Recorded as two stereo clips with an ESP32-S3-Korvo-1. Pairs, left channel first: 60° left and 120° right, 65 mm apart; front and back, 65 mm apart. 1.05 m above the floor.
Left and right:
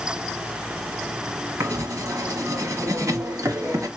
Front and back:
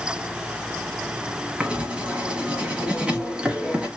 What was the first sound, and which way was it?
Writing, 110° right.